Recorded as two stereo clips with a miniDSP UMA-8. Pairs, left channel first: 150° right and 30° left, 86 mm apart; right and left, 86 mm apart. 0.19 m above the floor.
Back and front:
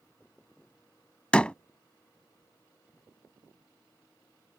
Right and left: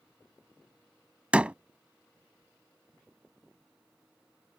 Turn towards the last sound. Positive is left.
turn(degrees=145)